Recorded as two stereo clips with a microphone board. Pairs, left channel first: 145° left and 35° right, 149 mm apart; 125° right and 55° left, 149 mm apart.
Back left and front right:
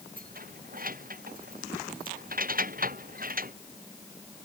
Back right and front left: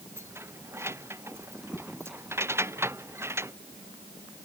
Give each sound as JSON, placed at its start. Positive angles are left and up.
{"t": 0.2, "sound": "keys jangling", "azimuth_deg": -20}